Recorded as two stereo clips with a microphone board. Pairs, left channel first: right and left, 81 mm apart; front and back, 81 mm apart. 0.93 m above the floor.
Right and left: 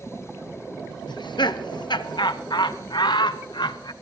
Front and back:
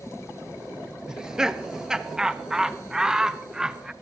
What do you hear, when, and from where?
1.1 s laughter: 100° right, 0.9 m